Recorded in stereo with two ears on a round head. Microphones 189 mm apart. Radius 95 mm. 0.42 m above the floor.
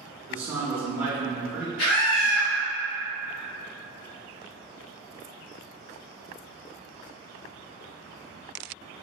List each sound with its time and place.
0.3 s a man speaking: 10° right (ahead or behind), 0.9 m
1.8 s a scream: 35° left (ahead or behind), 1.9 m